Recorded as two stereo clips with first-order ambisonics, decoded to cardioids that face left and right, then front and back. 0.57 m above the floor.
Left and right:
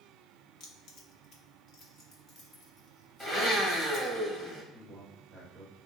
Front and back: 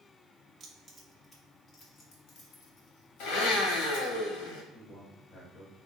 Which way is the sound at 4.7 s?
Straight ahead.